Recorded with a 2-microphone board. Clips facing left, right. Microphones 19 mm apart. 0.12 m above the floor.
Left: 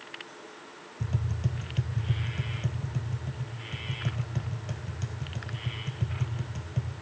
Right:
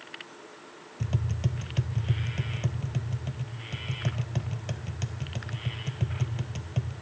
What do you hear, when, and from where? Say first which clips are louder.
1.0 s tapping: right 1 dB; 35° right (ahead or behind), 0.6 m